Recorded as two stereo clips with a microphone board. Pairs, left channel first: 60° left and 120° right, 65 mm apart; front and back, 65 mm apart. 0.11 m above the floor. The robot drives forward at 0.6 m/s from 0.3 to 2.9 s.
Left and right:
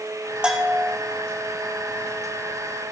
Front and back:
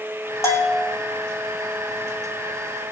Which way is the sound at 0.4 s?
45° right.